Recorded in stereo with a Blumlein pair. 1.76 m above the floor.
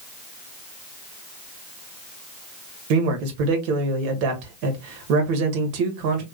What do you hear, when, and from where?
2.9 s a man speaking: 45° right, 1.6 m